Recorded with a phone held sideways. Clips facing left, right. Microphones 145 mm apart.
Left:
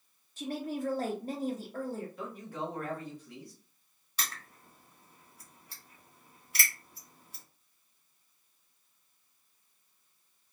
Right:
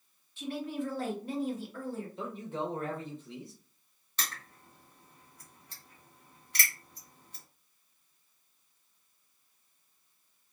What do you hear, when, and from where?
0.4 s a woman speaking: 40° left (ahead or behind), 0.9 m
2.2 s a man speaking: 25° right (ahead or behind), 0.9 m
4.2 s crushing: 5° left (ahead or behind), 1.3 m